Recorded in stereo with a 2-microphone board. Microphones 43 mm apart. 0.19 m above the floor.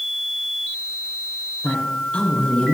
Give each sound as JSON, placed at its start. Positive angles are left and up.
{"t": 1.6, "sound": "a woman speaking", "side_deg": 35, "distance_m": 3.0}